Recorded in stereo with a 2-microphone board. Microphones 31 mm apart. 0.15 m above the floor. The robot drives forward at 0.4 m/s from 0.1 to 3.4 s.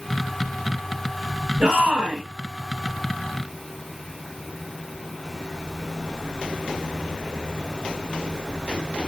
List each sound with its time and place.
1.6 s a shout: 35° right (ahead or behind), 1.6 m; by 2.2 s 40° right (ahead or behind), 1.5 m